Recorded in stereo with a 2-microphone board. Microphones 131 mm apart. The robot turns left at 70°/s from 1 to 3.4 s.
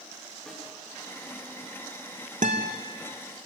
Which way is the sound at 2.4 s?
75° right (ahead or behind).